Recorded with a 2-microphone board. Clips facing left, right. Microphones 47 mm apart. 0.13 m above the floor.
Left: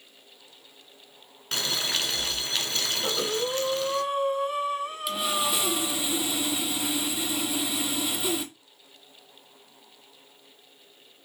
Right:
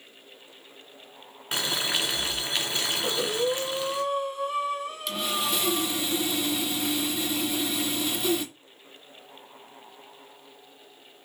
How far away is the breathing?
About 1.2 m.